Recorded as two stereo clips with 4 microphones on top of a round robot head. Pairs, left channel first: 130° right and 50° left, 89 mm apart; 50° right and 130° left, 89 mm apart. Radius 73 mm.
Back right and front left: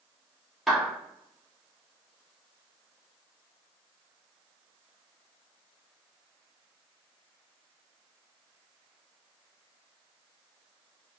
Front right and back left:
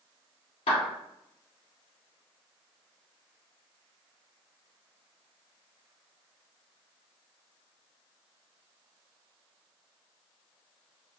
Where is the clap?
40° right, 1.7 m.